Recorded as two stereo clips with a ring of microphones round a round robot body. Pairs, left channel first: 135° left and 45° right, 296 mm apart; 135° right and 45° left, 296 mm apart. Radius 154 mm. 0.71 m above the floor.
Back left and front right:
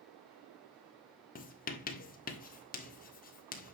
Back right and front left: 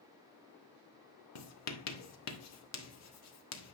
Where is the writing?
165° right, 1.3 m.